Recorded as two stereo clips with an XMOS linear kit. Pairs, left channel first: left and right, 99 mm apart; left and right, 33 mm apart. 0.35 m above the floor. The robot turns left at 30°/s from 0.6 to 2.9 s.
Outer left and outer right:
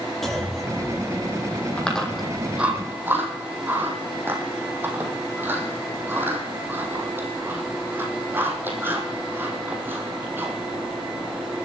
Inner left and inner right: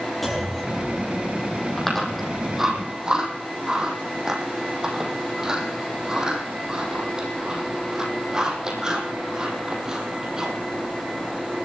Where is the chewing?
10° left (ahead or behind), 3.5 m; by 10.5 s 20° right (ahead or behind), 3.5 m.